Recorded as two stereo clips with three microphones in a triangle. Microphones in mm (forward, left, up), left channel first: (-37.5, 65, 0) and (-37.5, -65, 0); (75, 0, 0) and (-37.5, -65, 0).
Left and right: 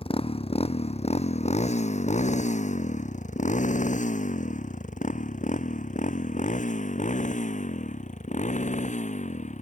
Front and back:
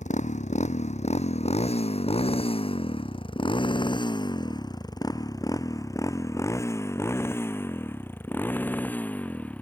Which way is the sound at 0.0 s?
50° left.